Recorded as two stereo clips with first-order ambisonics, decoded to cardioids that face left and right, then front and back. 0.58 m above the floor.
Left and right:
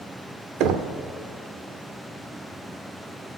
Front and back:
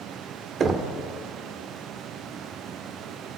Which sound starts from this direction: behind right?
Knocking, at 0.6 s.